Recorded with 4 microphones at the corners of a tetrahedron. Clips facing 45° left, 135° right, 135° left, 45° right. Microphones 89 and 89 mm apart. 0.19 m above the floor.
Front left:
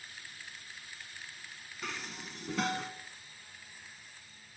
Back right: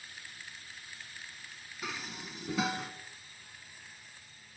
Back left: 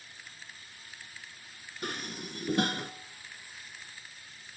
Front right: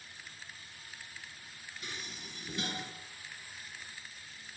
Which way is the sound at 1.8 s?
140° left.